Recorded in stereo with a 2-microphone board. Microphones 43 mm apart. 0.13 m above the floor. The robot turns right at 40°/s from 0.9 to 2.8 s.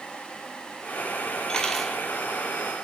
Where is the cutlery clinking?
20° left (ahead or behind), 1.6 m; by 2.0 s centre (ahead or behind), 1.6 m.